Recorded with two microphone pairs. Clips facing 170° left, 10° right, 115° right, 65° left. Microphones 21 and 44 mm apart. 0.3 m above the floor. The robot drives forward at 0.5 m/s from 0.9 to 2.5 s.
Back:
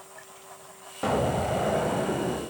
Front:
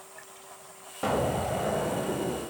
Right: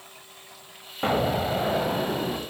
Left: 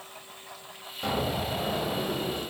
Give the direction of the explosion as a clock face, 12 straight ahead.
3 o'clock.